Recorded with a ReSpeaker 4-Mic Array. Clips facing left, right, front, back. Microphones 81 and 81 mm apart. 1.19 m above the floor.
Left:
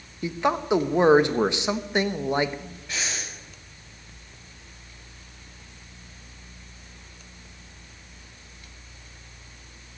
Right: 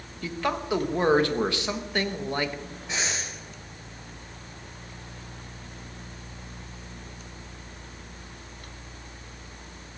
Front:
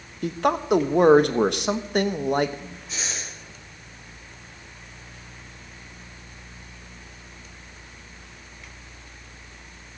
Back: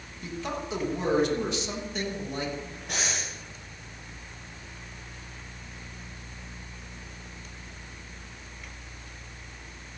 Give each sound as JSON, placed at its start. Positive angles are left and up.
{"t": 0.2, "sound": "a man speaking", "azimuth_deg": 20, "distance_m": 1.2}
{"t": 2.9, "sound": "breathing", "azimuth_deg": -160, "distance_m": 5.5}